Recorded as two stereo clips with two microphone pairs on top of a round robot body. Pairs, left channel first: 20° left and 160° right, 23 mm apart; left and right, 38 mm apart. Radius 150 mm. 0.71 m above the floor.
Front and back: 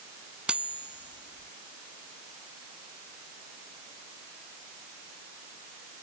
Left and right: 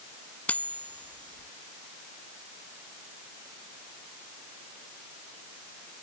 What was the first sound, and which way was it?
Cutlery clinking, 150° left.